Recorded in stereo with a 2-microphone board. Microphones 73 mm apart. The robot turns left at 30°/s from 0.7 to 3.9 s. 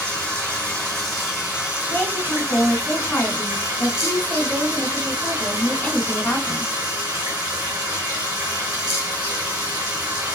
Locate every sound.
0.0 s running water: 15° left, 1.7 m; by 10.4 s 80° right, 1.7 m
1.9 s a woman speaking: 130° left, 1.2 m; by 6.7 s 70° left, 1.2 m